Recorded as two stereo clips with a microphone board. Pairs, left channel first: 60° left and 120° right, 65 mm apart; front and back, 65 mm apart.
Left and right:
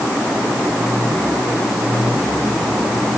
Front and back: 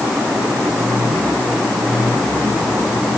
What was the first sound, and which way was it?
Only background noise.